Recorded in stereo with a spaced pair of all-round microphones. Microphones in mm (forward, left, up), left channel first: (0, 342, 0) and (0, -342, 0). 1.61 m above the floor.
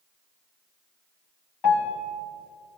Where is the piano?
35° left (ahead or behind), 1.2 m.